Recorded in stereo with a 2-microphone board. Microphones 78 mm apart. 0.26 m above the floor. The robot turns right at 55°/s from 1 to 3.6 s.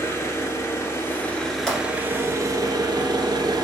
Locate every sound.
0.0 s an engine running: 145° left, 0.9 m; by 3.6 s 75° right, 0.9 m
1.7 s a pop: 5° left (ahead or behind), 1.6 m; by 1.8 s 15° left (ahead or behind), 1.6 m